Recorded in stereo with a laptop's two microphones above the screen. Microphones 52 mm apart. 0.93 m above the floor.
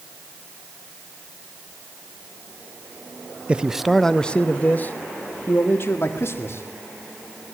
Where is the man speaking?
20° right (ahead or behind), 0.7 m; by 6.6 s 55° left (ahead or behind), 2.5 m.